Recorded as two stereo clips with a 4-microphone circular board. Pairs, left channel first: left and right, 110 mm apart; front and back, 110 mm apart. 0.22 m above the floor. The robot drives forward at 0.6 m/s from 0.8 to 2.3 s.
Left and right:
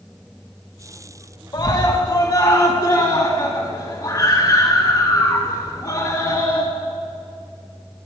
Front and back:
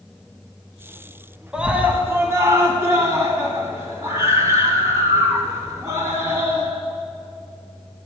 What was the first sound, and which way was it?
A scream, 100° left.